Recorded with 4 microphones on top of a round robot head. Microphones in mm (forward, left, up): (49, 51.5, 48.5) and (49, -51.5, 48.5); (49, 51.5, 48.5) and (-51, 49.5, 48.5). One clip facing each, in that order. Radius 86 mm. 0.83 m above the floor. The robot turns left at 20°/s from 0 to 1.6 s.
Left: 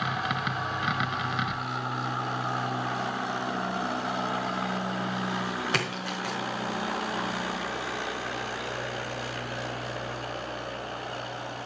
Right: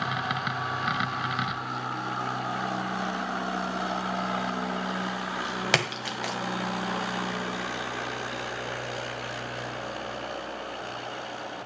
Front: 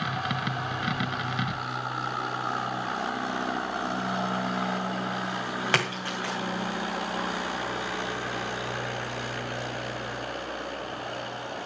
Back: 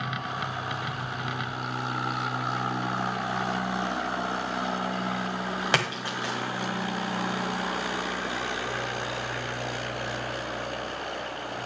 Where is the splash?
105° right, 1.9 m.